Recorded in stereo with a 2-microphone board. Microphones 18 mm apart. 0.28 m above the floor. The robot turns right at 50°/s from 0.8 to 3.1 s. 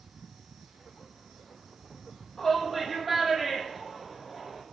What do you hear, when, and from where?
2.4 s a shout: 150° left, 7.5 m; by 4.6 s 175° right, 7.5 m